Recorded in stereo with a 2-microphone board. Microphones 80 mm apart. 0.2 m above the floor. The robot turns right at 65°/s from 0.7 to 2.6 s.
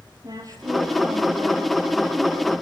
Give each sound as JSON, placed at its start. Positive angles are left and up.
{"t": 0.2, "sound": "a woman speaking", "azimuth_deg": -135, "distance_m": 6.0}